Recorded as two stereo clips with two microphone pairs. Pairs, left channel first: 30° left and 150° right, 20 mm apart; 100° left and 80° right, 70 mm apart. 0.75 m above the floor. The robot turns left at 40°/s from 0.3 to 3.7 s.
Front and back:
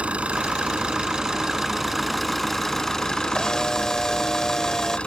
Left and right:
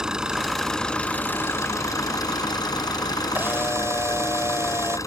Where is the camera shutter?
25° right; by 5.0 s 40° right.